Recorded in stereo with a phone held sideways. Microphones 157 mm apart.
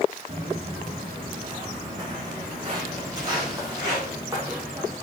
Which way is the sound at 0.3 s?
40° right (ahead or behind).